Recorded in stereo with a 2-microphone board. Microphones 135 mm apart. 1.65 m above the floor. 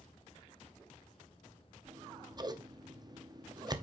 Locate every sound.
1.9 s scissors: 30° right (ahead or behind), 0.9 m